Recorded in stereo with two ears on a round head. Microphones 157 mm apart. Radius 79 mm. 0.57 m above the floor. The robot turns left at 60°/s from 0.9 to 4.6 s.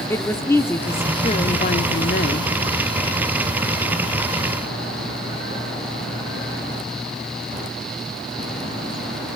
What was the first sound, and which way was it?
A woman speaking, 160° left.